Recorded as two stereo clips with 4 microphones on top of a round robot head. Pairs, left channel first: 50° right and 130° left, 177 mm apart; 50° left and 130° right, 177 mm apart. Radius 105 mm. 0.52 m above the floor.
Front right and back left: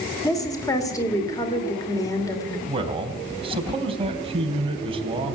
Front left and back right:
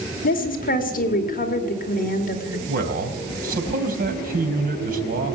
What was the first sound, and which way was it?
A woman speaking, 20° left.